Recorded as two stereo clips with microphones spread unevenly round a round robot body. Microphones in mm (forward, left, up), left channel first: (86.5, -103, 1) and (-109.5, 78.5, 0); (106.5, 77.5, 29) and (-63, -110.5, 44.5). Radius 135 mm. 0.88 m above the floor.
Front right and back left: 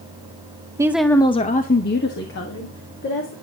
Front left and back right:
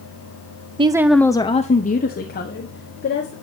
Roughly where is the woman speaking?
Behind.